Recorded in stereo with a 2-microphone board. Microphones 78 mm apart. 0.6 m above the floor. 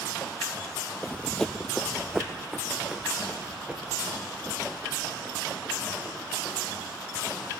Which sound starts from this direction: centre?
Running footsteps, at 1.0 s.